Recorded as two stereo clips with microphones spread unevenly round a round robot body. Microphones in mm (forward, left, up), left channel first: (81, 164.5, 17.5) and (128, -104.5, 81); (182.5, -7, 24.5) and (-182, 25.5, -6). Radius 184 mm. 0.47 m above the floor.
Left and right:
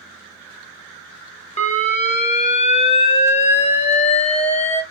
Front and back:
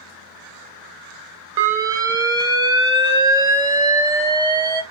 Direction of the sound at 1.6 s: 110° left.